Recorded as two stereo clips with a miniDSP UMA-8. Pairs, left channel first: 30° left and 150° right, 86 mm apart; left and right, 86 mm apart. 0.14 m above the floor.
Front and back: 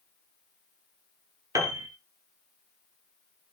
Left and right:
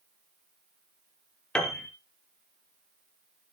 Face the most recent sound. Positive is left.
turn(degrees=170)